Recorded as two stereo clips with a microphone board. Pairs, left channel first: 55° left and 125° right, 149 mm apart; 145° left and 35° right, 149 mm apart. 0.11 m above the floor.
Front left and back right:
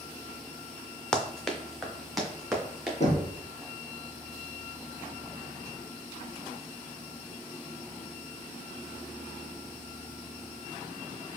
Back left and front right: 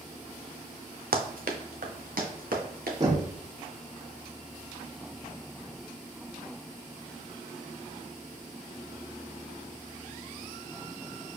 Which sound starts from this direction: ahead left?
Knocking, at 3.0 s.